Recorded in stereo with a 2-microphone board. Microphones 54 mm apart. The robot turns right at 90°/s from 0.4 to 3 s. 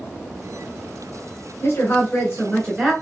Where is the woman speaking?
65° left, 1.5 m; by 2.9 s 175° right, 1.5 m.